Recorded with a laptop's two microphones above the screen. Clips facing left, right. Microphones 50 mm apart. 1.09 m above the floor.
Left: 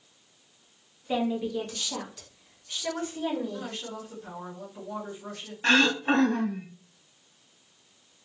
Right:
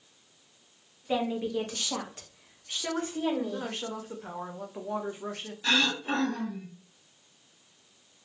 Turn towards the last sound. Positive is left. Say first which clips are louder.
# left 5 dB
turn(degrees=40)  # may be behind; listen again after turning